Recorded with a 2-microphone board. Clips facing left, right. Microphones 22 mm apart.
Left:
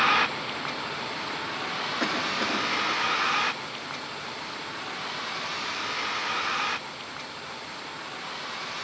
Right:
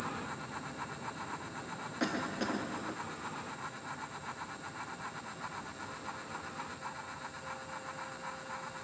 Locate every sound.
0.0 s a vehicle: 70° left (ahead or behind); by 8.8 s 65° left (ahead or behind)
2.0 s a cough: 15° left (ahead or behind)